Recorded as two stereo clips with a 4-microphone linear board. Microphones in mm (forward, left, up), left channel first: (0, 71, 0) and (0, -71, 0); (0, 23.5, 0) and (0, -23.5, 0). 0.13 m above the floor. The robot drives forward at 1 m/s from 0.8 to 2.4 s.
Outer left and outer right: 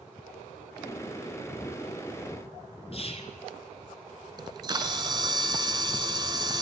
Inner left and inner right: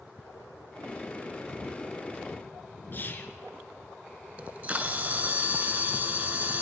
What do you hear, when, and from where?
2.9 s whispering: 45° left (ahead or behind), 1.4 m
4.4 s a camera shutter: 30° right (ahead or behind), 1.0 m